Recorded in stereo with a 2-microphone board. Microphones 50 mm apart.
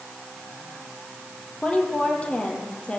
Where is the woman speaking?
20° left (ahead or behind), 7.5 m; by 3.0 s 25° left (ahead or behind), 6.5 m.